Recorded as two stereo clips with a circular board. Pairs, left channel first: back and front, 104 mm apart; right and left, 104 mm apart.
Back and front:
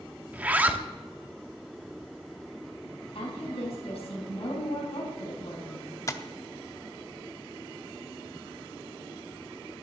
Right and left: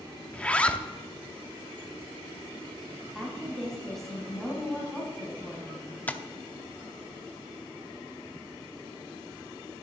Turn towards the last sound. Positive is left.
turn(degrees=-150)